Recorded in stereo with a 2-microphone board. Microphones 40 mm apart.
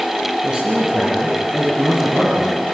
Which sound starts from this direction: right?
A man speaking, at 0.4 s.